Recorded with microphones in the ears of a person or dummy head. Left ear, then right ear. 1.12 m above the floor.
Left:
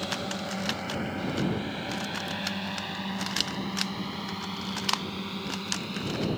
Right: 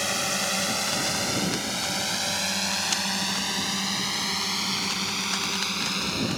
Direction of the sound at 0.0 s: 60° right (ahead or behind).